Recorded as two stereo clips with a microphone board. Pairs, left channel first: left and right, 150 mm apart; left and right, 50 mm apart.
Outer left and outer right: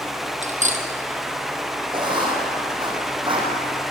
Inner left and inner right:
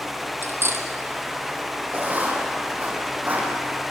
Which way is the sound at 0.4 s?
50° right (ahead or behind).